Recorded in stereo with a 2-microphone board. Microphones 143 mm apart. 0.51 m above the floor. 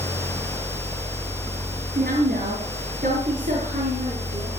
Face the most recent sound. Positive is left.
turn(degrees=-50)  # may be behind; listen again after turning